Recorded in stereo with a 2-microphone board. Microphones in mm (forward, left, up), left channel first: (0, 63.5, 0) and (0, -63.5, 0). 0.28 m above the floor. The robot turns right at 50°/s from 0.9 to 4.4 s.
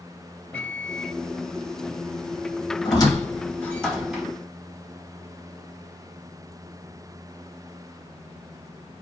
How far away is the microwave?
About 0.8 m.